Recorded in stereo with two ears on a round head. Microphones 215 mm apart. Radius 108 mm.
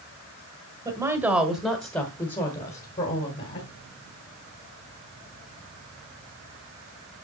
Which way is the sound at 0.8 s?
15° right (ahead or behind).